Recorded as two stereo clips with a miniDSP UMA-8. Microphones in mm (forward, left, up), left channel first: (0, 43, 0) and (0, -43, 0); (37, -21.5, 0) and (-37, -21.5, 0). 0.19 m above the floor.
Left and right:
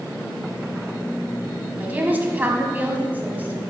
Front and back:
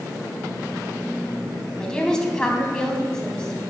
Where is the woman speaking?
65° right, 1.0 m.